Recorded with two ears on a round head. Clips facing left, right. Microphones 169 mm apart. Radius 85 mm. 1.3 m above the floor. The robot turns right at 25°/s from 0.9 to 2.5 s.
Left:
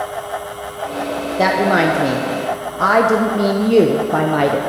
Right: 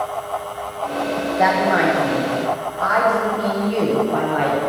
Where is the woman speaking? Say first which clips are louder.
Left 3 dB; 35° left (ahead or behind), 0.6 m; by 4.6 s 55° left (ahead or behind), 0.6 m.